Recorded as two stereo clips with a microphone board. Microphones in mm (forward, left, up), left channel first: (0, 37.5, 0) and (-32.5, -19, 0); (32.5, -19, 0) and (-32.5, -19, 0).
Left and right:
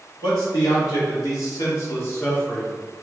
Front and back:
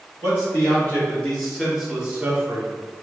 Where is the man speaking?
55° left, 2.0 m; by 2.7 s 145° left, 1.1 m.